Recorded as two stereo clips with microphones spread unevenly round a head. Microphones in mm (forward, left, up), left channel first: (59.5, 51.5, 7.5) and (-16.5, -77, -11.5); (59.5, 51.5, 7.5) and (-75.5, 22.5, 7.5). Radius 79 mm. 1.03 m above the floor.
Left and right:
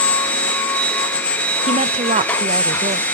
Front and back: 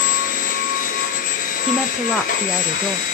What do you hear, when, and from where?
0.0 s a machine running: 25° right, 1.6 m
1.7 s a woman speaking: 75° right, 0.6 m